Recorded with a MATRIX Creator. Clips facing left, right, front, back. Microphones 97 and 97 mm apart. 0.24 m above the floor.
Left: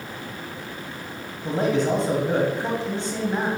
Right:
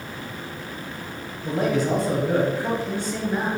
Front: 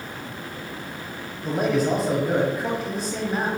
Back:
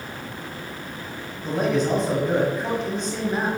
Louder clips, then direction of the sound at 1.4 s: Left 1 dB, even; 75° left.